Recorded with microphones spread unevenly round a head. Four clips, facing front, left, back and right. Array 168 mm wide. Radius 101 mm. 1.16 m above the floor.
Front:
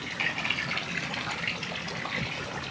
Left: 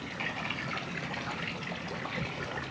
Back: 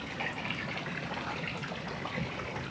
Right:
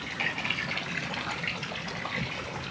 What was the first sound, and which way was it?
Only background noise.